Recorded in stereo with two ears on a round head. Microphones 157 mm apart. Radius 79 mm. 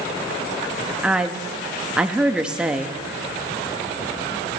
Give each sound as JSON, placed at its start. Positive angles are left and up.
{"t": 1.0, "sound": "a woman speaking", "side_deg": -5, "distance_m": 0.8}